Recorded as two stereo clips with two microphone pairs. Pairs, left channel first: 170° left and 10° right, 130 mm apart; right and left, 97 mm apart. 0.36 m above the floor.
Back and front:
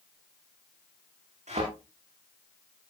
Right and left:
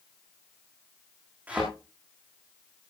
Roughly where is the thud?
Ahead.